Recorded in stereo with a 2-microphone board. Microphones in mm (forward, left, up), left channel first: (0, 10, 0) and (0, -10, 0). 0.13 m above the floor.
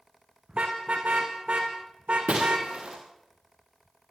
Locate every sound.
0.5 s a car horn: 70° right (ahead or behind), 6 m
2.3 s breaking glass: 75° right (ahead or behind), 9.5 m